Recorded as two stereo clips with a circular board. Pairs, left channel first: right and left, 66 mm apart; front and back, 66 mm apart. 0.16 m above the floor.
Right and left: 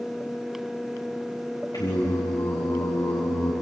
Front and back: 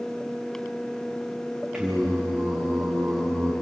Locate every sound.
1.7 s singing: 105° right, 5.5 m